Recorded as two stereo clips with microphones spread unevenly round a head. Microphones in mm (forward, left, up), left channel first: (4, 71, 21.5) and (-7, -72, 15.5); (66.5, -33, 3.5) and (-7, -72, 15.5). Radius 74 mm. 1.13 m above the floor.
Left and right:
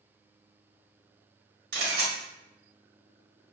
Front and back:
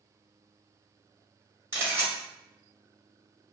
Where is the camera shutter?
90° right, 1.4 m.